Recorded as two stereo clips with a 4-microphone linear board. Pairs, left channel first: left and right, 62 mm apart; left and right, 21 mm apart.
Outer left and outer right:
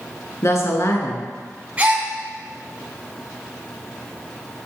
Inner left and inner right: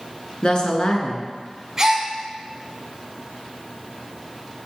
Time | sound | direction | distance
0.4 | a woman speaking | 50° left (ahead or behind) | 1.9 m
1.8 | a gasp | 25° right (ahead or behind) | 1.6 m